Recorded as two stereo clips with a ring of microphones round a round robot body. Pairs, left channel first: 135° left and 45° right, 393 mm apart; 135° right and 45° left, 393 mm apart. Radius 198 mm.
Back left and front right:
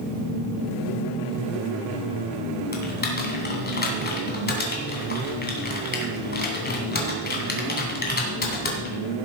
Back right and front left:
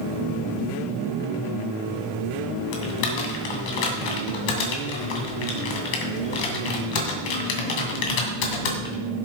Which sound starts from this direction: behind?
Typing on a keyboard, at 2.7 s.